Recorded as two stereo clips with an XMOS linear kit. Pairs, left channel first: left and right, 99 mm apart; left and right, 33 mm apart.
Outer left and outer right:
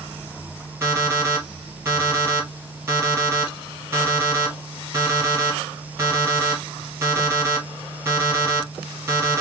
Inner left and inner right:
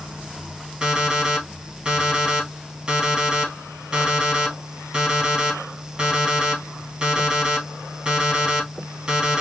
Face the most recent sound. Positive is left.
turn(degrees=-25)  # may be behind; listen again after turning